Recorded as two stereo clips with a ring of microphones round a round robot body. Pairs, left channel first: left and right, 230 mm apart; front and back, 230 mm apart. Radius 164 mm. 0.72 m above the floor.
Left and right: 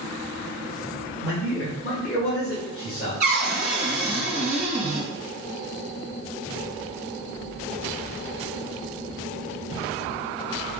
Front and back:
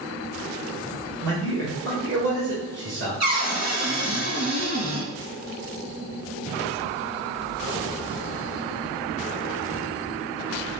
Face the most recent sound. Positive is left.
turn(degrees=-130)